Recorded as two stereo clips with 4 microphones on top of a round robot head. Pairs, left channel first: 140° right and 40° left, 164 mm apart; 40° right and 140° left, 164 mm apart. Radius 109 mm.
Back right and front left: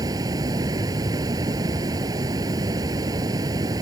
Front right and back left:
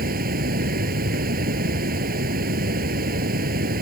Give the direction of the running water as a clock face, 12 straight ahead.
8 o'clock.